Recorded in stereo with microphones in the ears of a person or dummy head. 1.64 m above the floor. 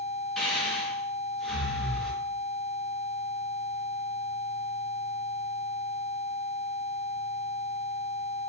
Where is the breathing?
Centre (ahead or behind), 1.0 m.